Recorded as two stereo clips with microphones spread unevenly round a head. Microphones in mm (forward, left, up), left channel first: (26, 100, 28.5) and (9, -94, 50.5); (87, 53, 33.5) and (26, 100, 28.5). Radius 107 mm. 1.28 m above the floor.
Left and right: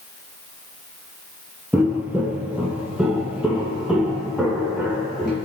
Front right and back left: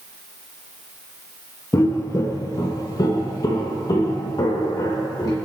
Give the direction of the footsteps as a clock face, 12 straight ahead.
1 o'clock.